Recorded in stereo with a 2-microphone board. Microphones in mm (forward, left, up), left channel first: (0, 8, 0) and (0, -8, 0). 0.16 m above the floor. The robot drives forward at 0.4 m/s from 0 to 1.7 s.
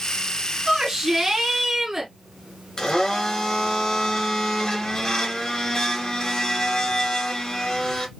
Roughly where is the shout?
Right.